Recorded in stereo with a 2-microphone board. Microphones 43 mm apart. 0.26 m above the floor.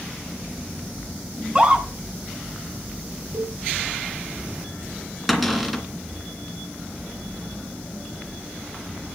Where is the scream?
25° right (ahead or behind), 3 m.